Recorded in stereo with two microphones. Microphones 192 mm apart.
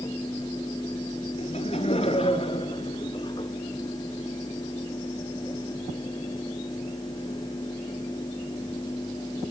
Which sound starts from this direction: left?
Laughter, at 1.4 s.